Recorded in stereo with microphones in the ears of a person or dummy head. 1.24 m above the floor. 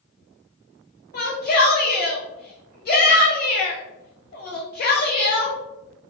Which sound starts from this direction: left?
A shout, at 1.1 s.